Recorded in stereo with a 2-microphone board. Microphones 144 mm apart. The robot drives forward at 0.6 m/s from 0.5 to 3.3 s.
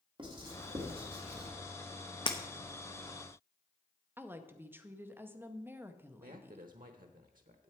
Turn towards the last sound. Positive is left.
turn(degrees=-75)  # may be behind; listen again after turning